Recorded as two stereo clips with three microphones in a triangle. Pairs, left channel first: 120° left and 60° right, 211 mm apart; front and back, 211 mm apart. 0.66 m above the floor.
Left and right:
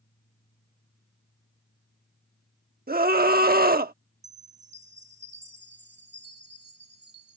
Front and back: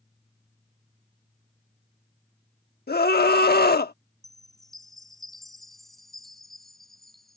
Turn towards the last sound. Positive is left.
turn(degrees=-90)